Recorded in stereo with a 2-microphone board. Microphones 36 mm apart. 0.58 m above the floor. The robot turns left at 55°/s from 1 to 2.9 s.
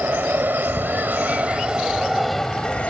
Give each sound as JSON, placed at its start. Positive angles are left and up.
{"t": 0.0, "sound": "an aircraft", "side_deg": -55}